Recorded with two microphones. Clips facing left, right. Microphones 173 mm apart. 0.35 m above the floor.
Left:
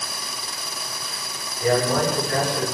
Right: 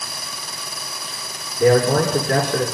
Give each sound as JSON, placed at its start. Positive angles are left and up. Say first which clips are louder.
{"t": 1.6, "sound": "a man speaking", "louder": "right 6 dB", "side_deg": -55, "distance_m": 5.0}